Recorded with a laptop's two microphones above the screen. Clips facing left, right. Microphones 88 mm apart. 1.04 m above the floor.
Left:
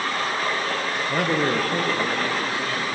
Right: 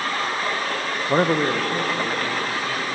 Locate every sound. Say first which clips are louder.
1.1 s a man speaking: right 4 dB; 40° right (ahead or behind), 0.6 m; by 2.9 s 35° left (ahead or behind), 2.5 m